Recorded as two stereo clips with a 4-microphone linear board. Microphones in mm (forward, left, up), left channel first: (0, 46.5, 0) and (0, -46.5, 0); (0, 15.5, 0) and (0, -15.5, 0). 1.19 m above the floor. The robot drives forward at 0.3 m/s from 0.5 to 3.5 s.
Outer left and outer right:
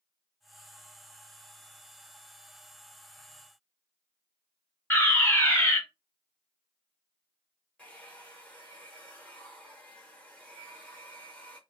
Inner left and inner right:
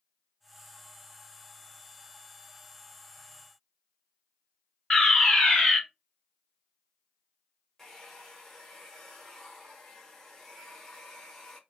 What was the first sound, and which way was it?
A fire alarm, 20° left (ahead or behind).